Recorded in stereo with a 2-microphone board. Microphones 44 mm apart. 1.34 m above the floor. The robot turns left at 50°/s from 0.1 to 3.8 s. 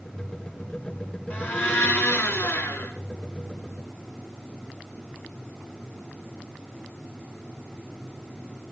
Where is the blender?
135° left, 3 m; by 2.9 s 50° left, 3 m.